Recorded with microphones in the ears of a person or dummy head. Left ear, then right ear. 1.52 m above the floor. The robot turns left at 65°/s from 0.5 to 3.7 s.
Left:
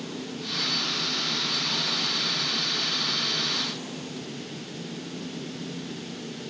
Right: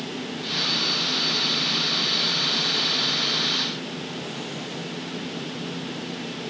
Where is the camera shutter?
I don't hear a camera shutter.